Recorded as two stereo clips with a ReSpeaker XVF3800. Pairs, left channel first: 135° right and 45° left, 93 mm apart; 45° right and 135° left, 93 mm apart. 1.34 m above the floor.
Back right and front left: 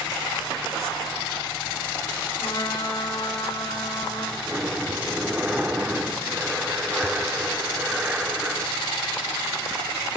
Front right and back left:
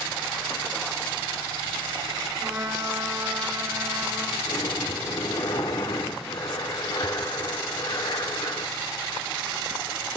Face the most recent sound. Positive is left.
turn(degrees=-25)